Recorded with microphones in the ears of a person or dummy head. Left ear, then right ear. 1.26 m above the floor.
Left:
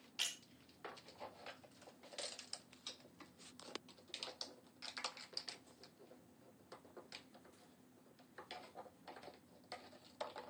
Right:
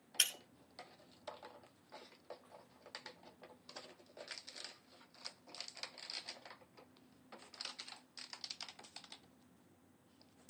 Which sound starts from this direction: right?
Breaking glass, at 0.2 s.